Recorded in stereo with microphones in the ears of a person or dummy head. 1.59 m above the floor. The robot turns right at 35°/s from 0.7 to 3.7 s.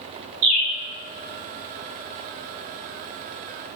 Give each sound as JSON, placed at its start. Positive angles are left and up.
{"t": 0.4, "sound": "a bird", "side_deg": -60, "distance_m": 1.9}